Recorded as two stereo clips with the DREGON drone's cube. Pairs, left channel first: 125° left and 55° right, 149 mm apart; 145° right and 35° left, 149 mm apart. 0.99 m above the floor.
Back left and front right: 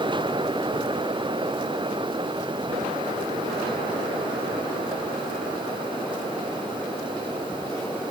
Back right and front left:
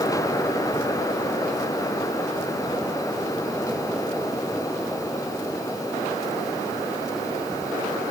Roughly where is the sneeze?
I don't hear a sneeze.